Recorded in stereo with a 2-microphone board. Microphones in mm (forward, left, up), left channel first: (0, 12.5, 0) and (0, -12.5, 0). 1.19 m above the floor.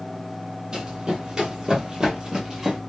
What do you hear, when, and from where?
0.7 s running footsteps: 35° right (ahead or behind), 1.6 m; by 2.8 s 20° right (ahead or behind), 1.2 m